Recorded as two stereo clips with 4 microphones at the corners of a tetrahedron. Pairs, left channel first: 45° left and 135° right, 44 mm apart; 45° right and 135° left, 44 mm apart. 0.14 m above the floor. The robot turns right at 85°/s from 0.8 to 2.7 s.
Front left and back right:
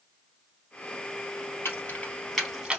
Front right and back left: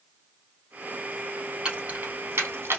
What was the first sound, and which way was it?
Keys jangling, 65° left.